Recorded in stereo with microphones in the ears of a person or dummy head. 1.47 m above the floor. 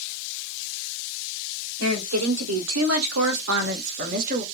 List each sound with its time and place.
1.8 s a woman speaking: 70° right (ahead or behind), 1.6 m; by 4.4 s 40° right (ahead or behind), 0.9 m